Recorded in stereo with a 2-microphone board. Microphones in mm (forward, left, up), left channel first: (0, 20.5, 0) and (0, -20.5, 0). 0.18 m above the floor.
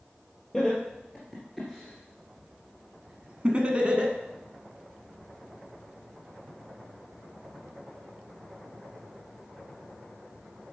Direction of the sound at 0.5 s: 5° left (ahead or behind).